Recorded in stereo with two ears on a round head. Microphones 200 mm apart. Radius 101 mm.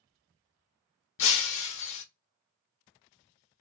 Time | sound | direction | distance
1.2 | breaking glass | 65° left (ahead or behind) | 1.0 m